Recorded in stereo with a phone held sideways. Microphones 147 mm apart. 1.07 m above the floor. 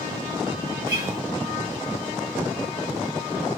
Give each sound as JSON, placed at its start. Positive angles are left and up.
{"t": 0.9, "sound": "a guitar", "side_deg": -20, "distance_m": 5.5}